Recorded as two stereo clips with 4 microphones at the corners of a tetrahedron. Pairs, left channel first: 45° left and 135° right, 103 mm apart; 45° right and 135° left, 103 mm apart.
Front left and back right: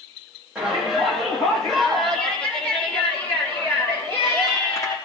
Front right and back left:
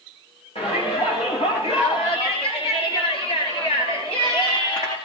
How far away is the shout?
About 9 m.